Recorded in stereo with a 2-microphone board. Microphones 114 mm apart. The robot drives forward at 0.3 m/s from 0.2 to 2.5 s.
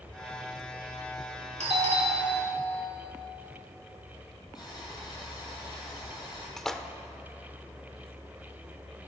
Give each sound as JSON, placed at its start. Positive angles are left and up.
{"t": 1.6, "sound": "a doorbell", "side_deg": -65, "distance_m": 2.0}
{"t": 4.5, "sound": "boiling", "side_deg": 35, "distance_m": 4.5}
{"t": 6.6, "sound": "a splash", "side_deg": 5, "distance_m": 0.7}